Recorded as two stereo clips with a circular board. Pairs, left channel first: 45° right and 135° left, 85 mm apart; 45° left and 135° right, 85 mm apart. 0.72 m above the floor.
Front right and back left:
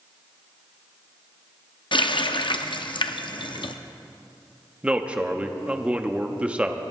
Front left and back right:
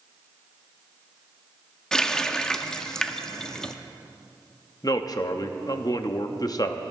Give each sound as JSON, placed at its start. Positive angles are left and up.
{"t": 1.9, "sound": "a running tap", "azimuth_deg": -35, "distance_m": 0.5}
{"t": 4.8, "sound": "a man speaking", "azimuth_deg": 60, "distance_m": 0.7}